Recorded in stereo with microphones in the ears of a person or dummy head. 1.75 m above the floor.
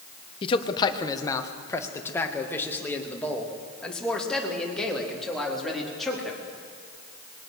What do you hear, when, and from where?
0.4 s a man speaking: 25° left (ahead or behind), 1.4 m; by 6.4 s centre (ahead or behind), 4.5 m